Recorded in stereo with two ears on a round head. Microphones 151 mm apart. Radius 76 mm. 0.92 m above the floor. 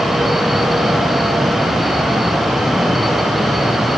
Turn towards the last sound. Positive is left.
No sound to turn to.